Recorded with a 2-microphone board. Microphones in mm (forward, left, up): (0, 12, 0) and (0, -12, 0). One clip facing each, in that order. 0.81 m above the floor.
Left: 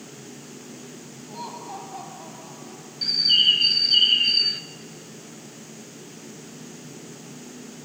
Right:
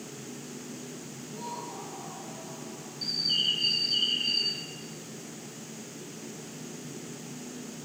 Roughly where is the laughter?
Left.